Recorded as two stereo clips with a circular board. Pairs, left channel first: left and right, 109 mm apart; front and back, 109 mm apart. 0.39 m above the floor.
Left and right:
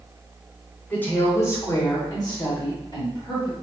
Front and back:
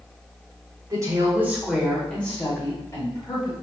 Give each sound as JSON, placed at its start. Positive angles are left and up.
{"t": 0.9, "sound": "a woman speaking", "azimuth_deg": 155, "distance_m": 1.2}